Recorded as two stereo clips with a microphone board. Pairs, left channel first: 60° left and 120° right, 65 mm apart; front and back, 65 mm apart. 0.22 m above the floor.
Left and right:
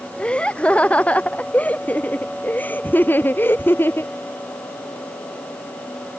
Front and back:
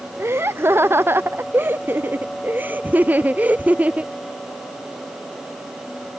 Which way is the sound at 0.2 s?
135° left.